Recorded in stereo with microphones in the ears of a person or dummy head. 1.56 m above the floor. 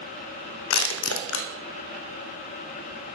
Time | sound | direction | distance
0.7 | crushing | 70° left (ahead or behind) | 0.5 m